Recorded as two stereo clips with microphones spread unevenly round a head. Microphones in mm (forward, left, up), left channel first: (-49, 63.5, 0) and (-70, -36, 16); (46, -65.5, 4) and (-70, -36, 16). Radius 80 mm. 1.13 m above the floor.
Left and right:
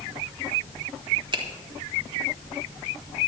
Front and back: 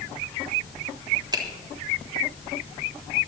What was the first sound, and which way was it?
A finger snap, 140° right.